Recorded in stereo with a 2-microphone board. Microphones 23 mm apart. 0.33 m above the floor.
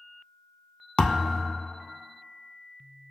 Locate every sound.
1.0 s a thud: 75° left (ahead or behind), 0.6 m